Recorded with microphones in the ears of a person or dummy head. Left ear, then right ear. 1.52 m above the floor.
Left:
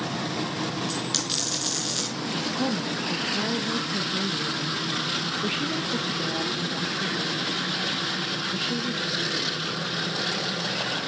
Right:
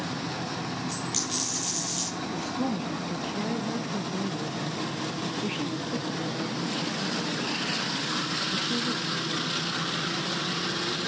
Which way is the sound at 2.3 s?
15° left (ahead or behind).